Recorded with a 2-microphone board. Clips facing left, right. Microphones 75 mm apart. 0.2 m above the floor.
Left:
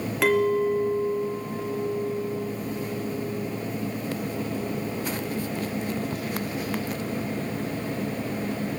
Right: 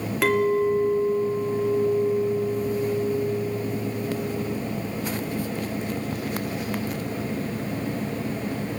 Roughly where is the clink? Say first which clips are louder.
Right 1 dB; centre.